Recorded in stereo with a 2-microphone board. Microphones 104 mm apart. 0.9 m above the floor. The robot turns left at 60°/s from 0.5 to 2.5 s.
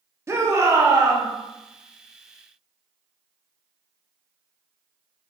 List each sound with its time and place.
0.3 s a shout: 55° right, 0.7 m; by 1.3 s 100° right, 0.7 m